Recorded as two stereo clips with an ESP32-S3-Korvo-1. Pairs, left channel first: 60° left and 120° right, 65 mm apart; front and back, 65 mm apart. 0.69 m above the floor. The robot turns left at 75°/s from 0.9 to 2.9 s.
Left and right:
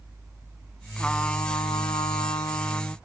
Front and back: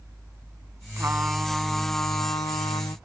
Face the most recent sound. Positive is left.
turn(degrees=-5)